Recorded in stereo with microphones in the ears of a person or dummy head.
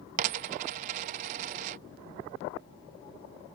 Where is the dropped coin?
35° right (ahead or behind).